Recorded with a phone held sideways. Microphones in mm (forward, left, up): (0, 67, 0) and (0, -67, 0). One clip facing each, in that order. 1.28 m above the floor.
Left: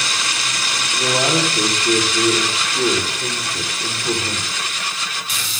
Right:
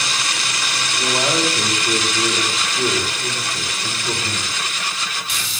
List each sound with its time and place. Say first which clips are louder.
0.9 s a man speaking: left 2 dB; 50° left (ahead or behind), 5 m